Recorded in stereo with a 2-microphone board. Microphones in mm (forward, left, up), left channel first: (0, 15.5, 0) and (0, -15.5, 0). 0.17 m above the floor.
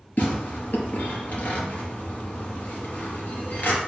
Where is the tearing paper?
60° left (ahead or behind), 3 m.